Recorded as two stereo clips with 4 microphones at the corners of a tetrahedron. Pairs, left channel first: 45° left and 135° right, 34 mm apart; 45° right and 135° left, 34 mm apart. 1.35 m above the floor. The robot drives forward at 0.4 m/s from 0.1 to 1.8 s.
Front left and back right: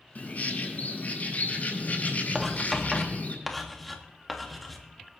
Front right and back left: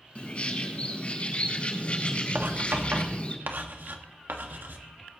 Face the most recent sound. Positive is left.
turn(degrees=135)